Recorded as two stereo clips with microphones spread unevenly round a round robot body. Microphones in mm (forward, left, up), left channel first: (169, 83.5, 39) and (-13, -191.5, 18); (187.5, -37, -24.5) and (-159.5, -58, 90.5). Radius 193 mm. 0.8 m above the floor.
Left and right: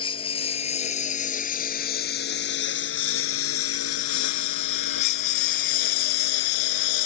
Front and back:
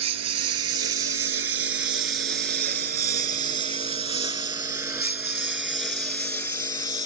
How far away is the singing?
No singing in this recording.